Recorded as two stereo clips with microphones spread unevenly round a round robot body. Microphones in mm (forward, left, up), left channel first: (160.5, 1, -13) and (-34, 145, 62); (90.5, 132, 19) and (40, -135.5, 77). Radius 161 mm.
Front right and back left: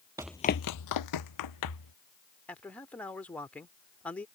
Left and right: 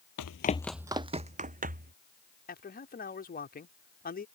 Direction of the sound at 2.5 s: 35° left.